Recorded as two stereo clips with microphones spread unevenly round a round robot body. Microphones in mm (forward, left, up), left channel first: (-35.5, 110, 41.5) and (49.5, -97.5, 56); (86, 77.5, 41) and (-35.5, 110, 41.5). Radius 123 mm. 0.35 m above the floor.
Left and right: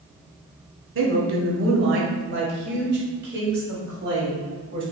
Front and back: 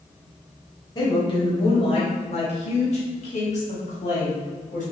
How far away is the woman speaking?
About 1.4 m.